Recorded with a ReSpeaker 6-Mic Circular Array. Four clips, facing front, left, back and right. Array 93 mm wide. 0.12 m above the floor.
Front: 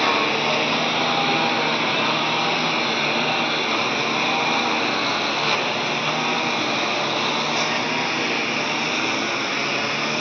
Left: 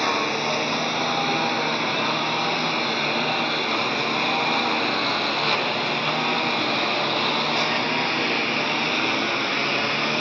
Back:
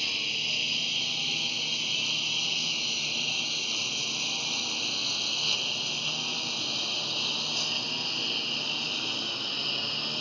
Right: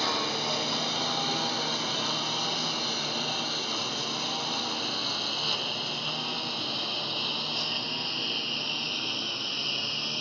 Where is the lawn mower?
20° left; by 10.2 s 45° left.